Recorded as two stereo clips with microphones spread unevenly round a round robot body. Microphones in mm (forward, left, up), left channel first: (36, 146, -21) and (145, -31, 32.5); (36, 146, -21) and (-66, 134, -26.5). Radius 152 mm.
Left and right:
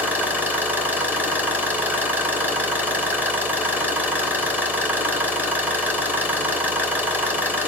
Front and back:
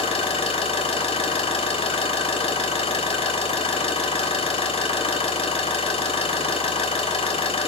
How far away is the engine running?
About 3 m.